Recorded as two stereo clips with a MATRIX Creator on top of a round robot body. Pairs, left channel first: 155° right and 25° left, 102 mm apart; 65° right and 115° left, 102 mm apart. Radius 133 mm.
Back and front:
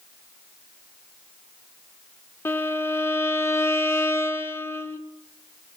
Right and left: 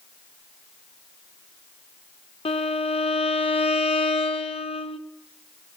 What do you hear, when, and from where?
2.5 s a violin: 95° right, 1.9 m